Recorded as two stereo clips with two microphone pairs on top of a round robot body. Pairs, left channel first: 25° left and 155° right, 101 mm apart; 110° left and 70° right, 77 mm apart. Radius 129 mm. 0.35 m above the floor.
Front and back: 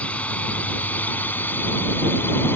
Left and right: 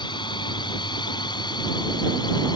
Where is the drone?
100° left; by 2.6 s 90° left.